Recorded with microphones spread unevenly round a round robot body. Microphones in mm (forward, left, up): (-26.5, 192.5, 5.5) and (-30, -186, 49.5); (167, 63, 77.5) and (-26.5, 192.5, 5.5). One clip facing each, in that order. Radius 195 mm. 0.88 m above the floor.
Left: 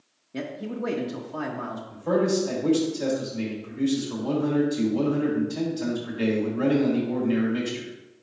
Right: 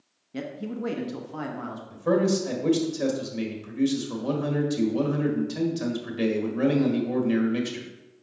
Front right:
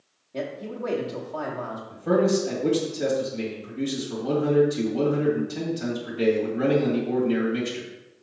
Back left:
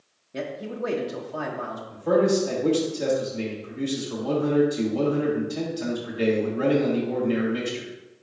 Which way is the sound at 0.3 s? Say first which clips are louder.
Left 1 dB, even; 170° right.